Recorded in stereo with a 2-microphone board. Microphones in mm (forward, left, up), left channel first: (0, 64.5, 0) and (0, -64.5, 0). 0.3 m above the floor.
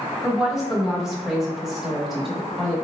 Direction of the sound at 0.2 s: 5° right (ahead or behind).